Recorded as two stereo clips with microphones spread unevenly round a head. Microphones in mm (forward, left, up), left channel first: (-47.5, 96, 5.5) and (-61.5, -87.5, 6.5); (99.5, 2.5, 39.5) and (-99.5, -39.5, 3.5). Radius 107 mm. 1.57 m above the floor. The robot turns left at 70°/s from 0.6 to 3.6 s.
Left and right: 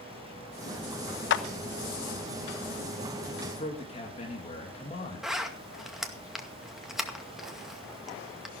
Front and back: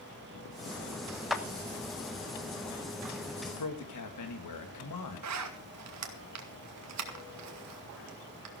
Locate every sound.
1.3 s a clap: 100° left, 1.0 m; by 1.4 s 85° left, 1.0 m
3.6 s a man speaking: 20° left, 3 m
5.2 s a zipper: straight behind, 2 m